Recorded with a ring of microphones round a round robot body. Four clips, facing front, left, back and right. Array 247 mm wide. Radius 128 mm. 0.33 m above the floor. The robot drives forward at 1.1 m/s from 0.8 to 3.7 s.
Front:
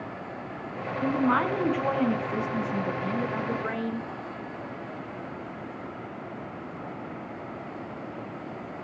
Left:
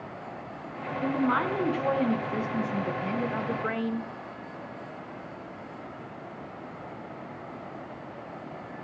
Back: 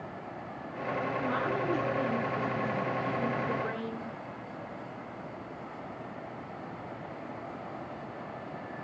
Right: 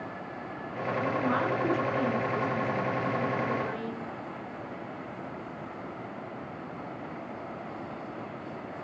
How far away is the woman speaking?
About 4 m.